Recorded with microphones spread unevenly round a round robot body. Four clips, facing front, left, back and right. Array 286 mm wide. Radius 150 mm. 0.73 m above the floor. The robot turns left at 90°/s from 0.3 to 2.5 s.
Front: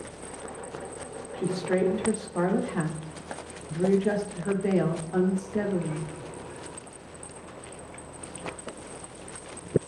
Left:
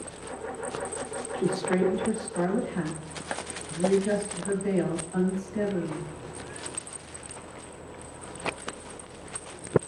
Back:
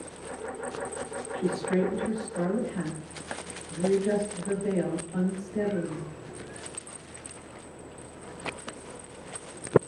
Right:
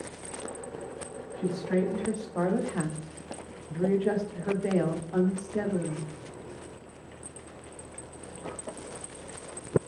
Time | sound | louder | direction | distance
1.4 | a woman speaking | left 2 dB, front 1 dB | 75° left | 2 m